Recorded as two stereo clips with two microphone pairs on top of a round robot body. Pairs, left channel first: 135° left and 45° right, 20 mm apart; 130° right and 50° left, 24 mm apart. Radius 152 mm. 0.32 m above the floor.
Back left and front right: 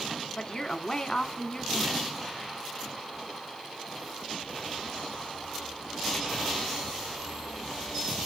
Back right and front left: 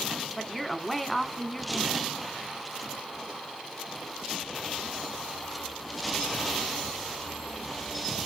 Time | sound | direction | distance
0.4 | a woman speaking | 145° left | 1.5 m